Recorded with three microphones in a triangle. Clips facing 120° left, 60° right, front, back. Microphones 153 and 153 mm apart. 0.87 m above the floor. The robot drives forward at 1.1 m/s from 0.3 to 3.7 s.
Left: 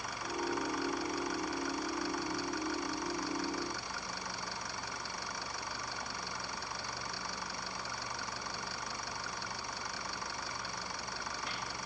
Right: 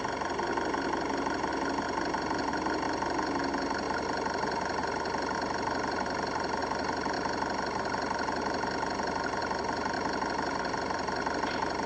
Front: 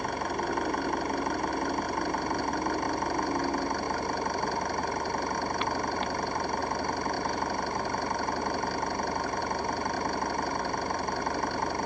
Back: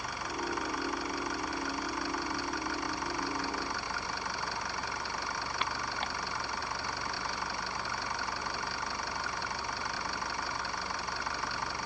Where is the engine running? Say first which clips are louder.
Right 7 dB, front 7 dB; 35° right.